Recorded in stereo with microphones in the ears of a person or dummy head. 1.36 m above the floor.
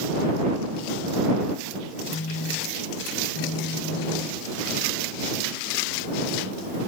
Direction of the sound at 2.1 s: 70° left (ahead or behind).